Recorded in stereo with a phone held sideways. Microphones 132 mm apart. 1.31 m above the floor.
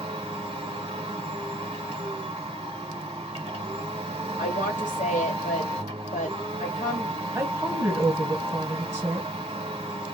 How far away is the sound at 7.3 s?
About 1.3 m.